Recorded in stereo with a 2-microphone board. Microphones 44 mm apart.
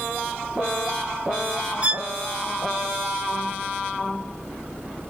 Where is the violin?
30° right (ahead or behind), 0.5 m.